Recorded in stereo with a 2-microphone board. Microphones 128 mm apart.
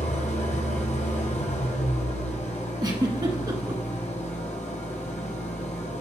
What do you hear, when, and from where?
0.0 s an engine running: 70° left (ahead or behind), 1.9 m
2.8 s a giggle: 30° right (ahead or behind), 1.1 m